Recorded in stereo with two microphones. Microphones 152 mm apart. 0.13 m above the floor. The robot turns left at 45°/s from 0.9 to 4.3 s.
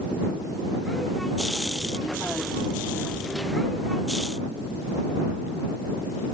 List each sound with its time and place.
Only background noise.